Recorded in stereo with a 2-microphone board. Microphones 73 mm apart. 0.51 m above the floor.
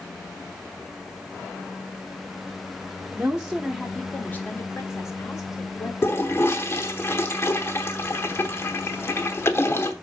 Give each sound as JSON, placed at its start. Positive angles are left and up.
{"t": 3.1, "sound": "a woman speaking", "side_deg": -20, "distance_m": 1.0}
{"t": 6.0, "sound": "a toilet flushing", "side_deg": 35, "distance_m": 0.9}